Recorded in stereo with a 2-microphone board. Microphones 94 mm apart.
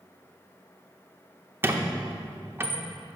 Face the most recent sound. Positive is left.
turn(degrees=-25)  # may be behind; listen again after turning